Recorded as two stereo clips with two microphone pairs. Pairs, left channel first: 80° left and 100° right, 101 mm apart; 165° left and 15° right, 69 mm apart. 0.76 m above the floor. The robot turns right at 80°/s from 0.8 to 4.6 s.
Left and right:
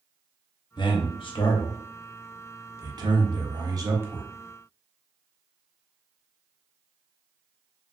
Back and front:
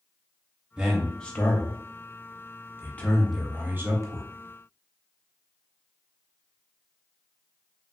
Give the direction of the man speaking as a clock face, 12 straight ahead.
10 o'clock.